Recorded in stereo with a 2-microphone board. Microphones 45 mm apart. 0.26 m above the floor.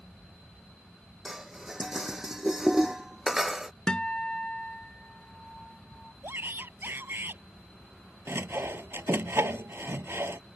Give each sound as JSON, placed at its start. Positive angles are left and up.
{"t": 1.2, "sound": "dishes clattering", "side_deg": -10}
{"t": 3.9, "sound": "a guitar", "side_deg": 20}
{"t": 6.2, "sound": "a shout", "side_deg": -55}
{"t": 8.3, "sound": "sawing", "side_deg": -70}